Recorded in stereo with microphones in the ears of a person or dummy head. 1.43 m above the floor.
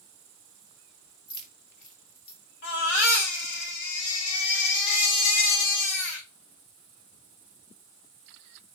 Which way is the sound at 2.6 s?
70° left (ahead or behind).